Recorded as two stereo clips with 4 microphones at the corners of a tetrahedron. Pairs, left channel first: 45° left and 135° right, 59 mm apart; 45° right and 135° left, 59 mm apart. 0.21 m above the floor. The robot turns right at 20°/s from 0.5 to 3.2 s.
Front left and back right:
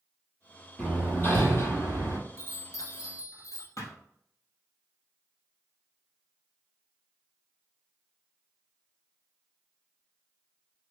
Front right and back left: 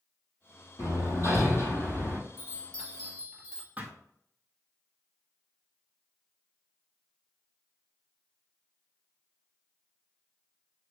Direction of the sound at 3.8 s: 70° left.